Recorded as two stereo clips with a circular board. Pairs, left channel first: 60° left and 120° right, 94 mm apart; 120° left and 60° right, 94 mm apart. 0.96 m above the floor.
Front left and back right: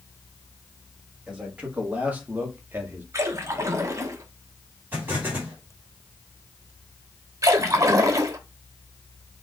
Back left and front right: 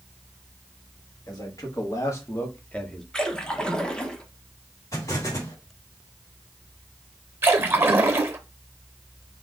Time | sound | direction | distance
1.3 | a man speaking | 165° left | 1.8 m
3.1 | a splash | 160° right | 0.8 m
4.9 | an explosion | 175° left | 2.5 m
7.4 | a splash | 105° right | 0.8 m